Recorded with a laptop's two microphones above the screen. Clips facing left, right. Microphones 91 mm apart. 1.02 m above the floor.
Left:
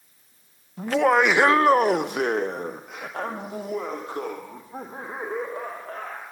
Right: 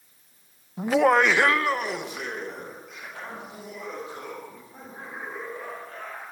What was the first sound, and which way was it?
Laughter, 15° right (ahead or behind).